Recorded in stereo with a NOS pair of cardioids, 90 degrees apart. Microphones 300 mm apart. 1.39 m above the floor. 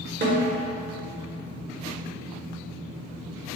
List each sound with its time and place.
0.2 s a snare drum: 35° right, 1.2 m